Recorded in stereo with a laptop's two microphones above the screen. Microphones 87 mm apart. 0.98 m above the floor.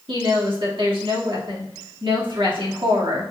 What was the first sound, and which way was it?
A woman speaking, 75° right (ahead or behind).